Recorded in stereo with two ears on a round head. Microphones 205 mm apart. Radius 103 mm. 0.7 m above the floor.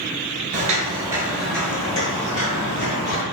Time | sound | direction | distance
0.5 | footsteps | 40° right (ahead or behind) | 0.8 m